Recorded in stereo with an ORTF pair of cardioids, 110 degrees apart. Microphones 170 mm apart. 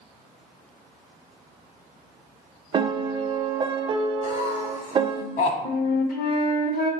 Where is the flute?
70° left, 0.8 m.